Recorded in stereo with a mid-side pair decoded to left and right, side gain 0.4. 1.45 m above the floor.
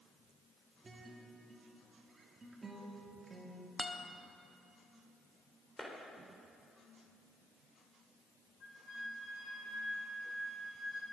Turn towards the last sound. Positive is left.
turn(degrees=65)